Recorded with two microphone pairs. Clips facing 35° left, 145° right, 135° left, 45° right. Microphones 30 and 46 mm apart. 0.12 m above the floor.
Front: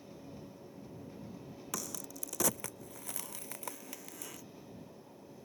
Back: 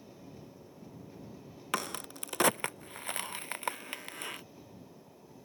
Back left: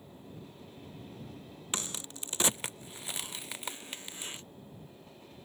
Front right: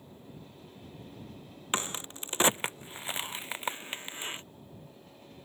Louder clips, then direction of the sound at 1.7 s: Back 8 dB, front right 6 dB; 105° right.